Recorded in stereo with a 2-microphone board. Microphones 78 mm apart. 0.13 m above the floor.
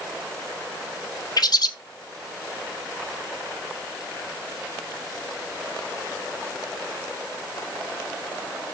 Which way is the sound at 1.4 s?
60° left (ahead or behind).